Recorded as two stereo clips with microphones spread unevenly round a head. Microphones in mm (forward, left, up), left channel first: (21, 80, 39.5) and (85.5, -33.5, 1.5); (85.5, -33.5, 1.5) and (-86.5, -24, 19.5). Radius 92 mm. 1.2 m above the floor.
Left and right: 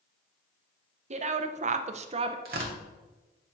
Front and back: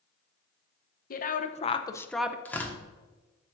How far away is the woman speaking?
About 0.9 m.